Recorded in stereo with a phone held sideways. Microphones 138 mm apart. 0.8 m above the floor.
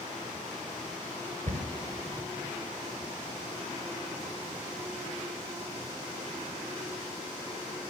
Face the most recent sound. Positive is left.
turn(degrees=-65)  # may be behind; listen again after turning